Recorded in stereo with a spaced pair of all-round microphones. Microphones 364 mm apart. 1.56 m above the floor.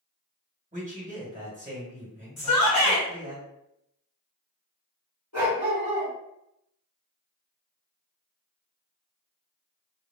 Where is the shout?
75° left (ahead or behind), 1.8 m.